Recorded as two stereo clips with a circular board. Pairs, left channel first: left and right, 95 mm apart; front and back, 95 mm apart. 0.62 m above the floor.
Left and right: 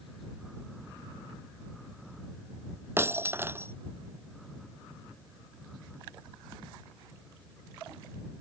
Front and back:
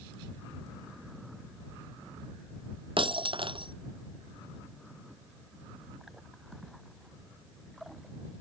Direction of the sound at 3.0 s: 155° right.